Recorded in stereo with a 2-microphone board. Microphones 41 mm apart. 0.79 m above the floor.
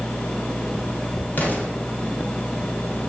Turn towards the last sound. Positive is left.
turn(degrees=50)  # may be behind; listen again after turning